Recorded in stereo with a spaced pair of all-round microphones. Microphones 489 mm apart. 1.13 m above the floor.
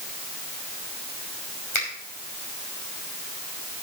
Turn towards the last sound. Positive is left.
turn(degrees=70)  # may be behind; listen again after turning